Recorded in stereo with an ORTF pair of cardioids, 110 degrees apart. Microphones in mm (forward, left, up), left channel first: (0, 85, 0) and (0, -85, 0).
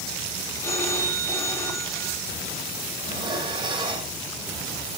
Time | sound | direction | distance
0.6 | a phone ringing | 15° left | 4.5 m
3.0 | dishes clattering | 30° right | 5 m